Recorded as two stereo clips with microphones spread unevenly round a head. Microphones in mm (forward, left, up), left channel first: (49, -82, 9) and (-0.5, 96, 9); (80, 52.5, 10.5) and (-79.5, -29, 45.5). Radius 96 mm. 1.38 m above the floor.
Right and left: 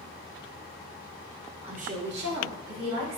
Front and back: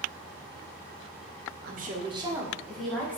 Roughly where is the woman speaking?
Behind.